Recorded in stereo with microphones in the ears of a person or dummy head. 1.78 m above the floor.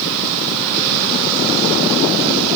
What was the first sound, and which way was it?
Only background noise.